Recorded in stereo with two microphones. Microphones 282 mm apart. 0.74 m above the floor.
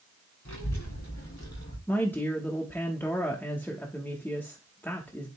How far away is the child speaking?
About 4.5 m.